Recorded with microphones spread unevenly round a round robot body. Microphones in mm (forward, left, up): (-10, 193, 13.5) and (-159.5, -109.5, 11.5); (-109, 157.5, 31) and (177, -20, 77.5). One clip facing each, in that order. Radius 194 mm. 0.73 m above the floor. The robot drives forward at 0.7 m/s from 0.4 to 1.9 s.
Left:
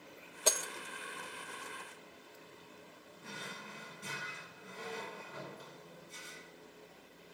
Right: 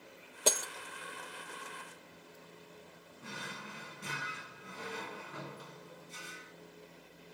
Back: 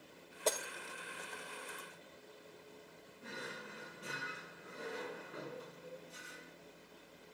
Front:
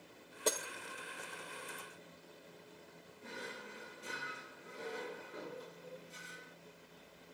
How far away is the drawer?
About 2 m.